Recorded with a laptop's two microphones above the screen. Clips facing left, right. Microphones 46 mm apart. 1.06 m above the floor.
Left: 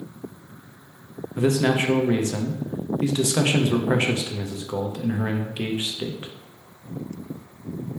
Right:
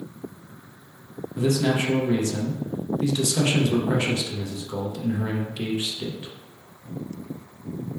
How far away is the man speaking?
About 0.6 m.